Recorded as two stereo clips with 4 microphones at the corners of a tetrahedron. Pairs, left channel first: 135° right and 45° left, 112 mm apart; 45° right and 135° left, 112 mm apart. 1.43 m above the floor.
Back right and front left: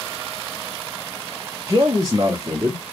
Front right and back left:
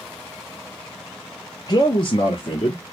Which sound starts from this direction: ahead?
A man speaking, at 1.7 s.